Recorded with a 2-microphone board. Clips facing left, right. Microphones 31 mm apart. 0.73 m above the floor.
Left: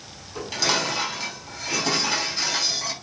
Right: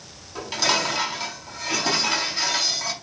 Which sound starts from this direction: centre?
Dishes clattering, at 0.3 s.